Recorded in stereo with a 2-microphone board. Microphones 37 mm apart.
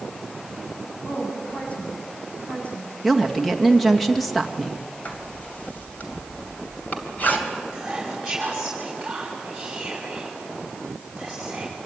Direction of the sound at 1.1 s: 45° left (ahead or behind).